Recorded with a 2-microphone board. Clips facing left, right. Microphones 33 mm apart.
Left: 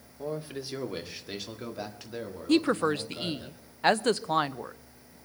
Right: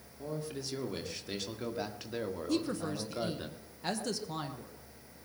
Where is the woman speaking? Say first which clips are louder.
Left 11 dB; 55° left (ahead or behind), 0.6 m.